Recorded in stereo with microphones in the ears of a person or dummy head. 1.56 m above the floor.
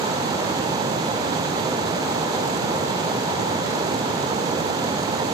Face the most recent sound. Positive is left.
No sound to turn to.